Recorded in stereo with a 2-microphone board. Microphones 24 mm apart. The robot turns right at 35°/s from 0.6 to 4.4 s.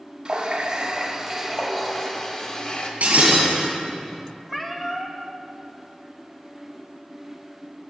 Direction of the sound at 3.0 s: 65° right (ahead or behind).